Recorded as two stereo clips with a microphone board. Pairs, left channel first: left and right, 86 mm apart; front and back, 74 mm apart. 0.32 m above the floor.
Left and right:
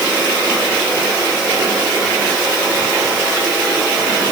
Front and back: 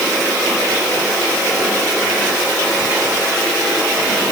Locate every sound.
Only background noise.